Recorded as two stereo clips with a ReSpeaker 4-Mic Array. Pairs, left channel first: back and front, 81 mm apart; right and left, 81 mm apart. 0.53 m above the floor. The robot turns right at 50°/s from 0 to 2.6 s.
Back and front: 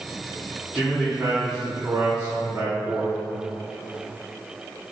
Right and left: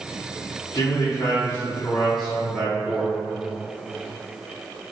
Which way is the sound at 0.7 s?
100° right.